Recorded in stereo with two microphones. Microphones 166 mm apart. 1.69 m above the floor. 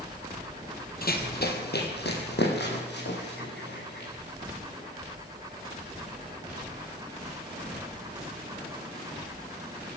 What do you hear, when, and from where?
1.0 s running footsteps: 60° left (ahead or behind), 3 m; by 4.1 s 80° left, 7.5 m